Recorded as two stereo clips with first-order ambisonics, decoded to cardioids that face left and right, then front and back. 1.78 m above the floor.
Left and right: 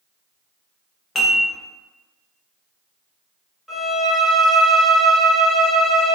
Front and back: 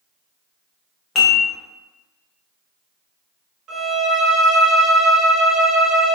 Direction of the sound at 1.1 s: 40° left.